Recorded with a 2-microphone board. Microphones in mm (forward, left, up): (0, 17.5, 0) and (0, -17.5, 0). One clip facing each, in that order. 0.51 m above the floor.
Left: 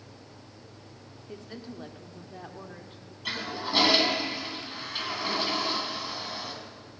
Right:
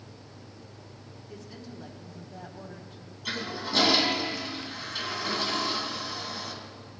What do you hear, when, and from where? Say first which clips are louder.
1.3 s a woman speaking: left 3 dB; 35° left (ahead or behind), 1.2 m; by 3.1 s 30° left (ahead or behind), 1.5 m
3.2 s a toilet flushing: left 1 dB; 20° left (ahead or behind), 2.5 m